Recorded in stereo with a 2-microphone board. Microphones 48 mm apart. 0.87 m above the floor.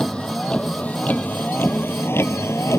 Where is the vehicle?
20° left (ahead or behind); by 2.8 s 80° left.